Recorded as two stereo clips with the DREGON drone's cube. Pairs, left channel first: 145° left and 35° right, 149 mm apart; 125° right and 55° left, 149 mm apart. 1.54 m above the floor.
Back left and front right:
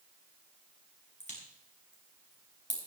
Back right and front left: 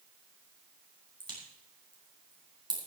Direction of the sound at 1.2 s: 115° left.